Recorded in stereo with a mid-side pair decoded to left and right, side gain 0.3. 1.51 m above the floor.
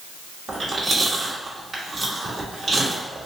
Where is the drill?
I don't hear a drill.